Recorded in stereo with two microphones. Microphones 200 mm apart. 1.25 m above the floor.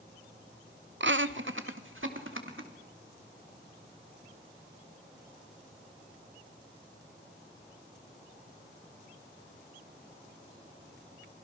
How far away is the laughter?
About 0.8 m.